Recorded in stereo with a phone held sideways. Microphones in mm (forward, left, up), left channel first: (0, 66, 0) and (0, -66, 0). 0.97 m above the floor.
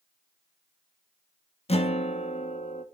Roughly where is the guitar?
Left.